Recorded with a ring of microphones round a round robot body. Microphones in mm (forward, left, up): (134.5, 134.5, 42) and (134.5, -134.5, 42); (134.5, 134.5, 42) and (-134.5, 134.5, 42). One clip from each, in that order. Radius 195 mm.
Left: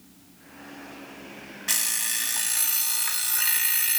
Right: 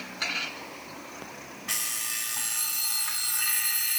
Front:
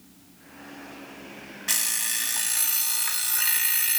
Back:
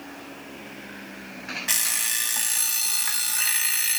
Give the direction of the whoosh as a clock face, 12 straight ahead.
I don't hear a whoosh.